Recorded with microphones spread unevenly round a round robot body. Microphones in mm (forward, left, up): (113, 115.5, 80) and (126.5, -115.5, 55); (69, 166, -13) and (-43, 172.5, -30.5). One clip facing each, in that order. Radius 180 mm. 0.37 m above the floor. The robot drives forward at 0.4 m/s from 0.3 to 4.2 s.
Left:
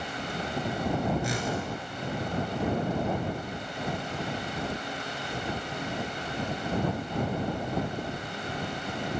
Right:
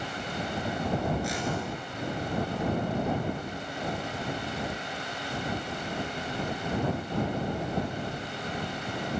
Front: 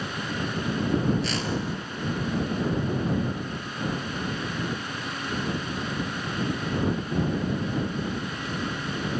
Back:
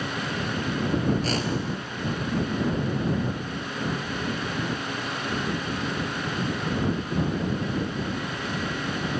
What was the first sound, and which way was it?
A whoosh, 130° left.